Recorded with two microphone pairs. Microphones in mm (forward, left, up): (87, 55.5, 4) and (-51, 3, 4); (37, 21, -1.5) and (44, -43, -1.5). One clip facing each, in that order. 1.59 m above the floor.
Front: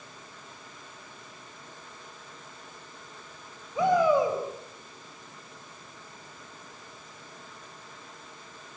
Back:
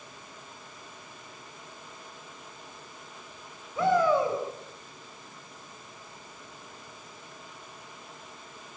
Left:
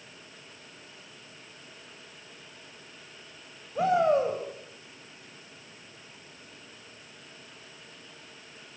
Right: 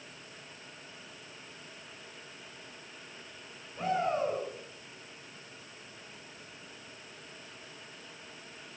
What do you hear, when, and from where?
3.8 s a shout: 95° left, 9 m